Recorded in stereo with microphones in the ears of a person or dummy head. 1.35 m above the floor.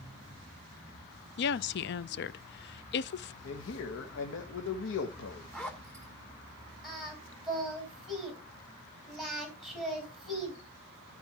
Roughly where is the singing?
Centre.